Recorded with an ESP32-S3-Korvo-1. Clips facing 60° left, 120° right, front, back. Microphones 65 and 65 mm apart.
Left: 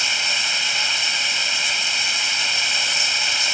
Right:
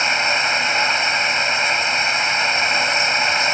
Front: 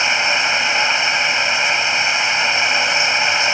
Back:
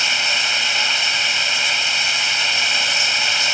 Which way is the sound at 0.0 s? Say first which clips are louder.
Right 6 dB, front 4 dB; 65° right.